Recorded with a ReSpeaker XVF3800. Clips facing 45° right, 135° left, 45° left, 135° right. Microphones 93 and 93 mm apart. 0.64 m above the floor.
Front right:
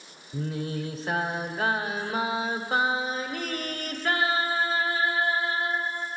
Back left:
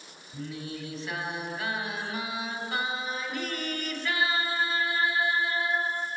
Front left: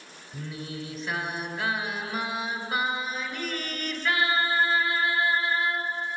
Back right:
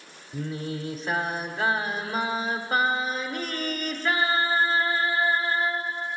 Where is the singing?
90° right, 1.2 m.